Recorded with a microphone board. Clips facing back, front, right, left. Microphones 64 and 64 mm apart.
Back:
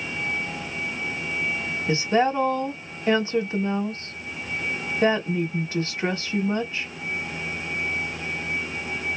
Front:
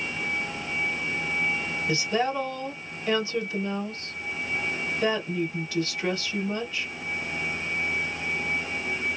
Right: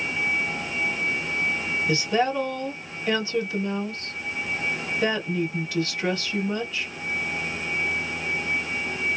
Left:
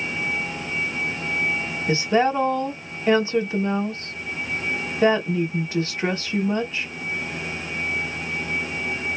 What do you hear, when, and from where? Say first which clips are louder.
1.9 s a woman speaking: back 5 dB, left 4 dB; 140° left, 1.0 m